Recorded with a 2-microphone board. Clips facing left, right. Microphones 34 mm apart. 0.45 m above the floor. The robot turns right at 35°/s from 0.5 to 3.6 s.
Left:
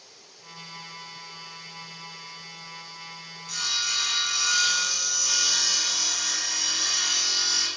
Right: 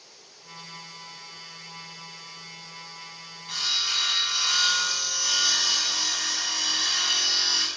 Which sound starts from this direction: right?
Sawing, at 3.5 s.